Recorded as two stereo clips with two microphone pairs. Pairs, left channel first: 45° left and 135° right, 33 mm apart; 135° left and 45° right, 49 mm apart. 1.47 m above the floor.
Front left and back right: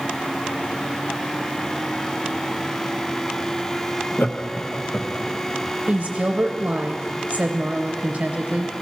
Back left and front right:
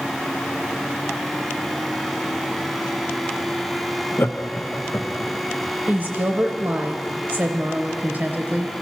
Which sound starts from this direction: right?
A woman speaking, at 5.9 s.